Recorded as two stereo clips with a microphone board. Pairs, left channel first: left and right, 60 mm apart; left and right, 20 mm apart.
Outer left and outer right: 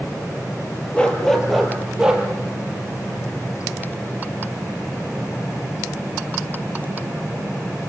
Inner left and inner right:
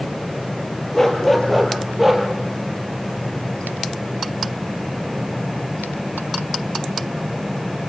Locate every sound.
0.9 s a dog barking: 15° left (ahead or behind), 3.5 m; by 2.2 s 15° right (ahead or behind), 4 m